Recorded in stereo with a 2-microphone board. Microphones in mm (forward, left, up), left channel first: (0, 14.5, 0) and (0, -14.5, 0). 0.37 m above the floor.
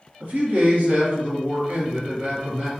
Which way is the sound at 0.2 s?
55° right (ahead or behind).